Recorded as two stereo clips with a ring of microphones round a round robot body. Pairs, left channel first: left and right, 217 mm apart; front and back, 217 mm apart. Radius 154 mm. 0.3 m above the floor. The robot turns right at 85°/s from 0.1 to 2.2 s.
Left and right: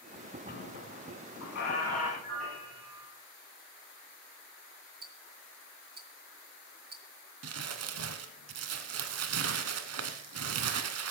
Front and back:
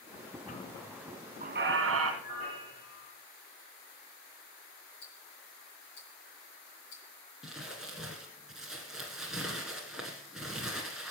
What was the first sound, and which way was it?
A squeak, 55° left.